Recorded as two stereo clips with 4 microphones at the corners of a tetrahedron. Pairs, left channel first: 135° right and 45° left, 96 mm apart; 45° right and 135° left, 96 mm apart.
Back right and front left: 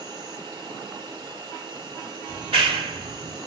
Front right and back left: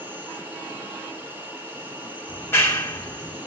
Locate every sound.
0.0 s an insect: 70° left, 3 m
2.3 s a clap: 20° left, 2.0 m